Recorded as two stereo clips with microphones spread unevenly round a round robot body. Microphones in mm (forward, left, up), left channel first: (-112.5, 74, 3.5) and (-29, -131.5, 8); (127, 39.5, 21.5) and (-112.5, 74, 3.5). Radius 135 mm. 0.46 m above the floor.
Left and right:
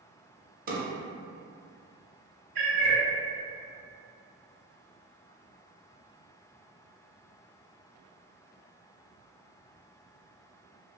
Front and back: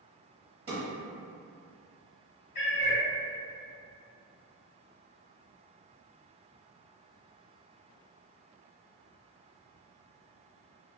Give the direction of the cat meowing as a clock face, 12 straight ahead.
1 o'clock.